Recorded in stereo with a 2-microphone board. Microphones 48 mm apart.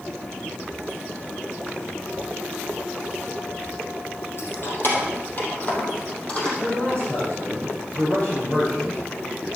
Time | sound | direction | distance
4.4 | keys jangling | 55° left (ahead or behind) | 3.5 m
6.6 | a man speaking | 25° left (ahead or behind) | 6 m